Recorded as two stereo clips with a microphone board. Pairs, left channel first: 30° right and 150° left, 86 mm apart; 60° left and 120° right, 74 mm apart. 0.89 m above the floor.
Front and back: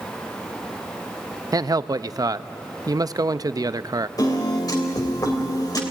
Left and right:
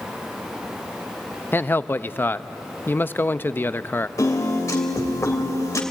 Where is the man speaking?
115° left, 0.6 m.